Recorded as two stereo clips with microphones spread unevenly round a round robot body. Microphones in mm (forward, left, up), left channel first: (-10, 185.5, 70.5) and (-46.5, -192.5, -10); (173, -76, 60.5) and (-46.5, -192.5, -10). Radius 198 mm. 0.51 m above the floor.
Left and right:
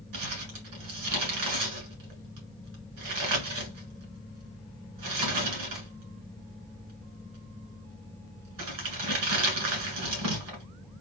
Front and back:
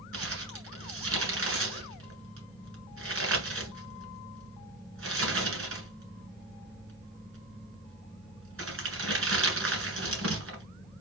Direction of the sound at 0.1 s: 130° right.